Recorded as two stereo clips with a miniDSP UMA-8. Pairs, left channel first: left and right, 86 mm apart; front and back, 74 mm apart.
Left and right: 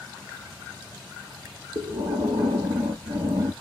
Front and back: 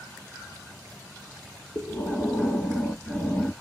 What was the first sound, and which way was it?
Breathing, 60° right.